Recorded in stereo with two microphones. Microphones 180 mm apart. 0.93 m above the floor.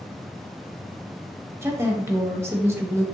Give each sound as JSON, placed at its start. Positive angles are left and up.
{"t": 1.6, "sound": "a woman speaking", "side_deg": -15, "distance_m": 0.8}